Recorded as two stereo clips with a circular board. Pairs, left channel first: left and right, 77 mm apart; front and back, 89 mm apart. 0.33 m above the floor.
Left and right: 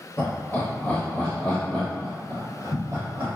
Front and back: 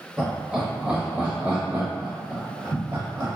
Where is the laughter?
100° left, 1.3 m; by 3.3 s 155° right, 1.6 m.